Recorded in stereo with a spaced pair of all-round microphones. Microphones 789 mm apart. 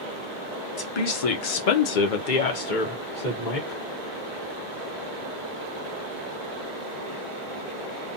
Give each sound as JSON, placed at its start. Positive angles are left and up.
{"t": 0.8, "sound": "a woman speaking", "side_deg": 30, "distance_m": 0.7}